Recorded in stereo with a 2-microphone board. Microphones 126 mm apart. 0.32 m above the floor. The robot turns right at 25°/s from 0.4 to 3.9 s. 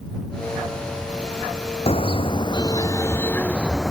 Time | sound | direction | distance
1.9 | a car horn | 130° left | ?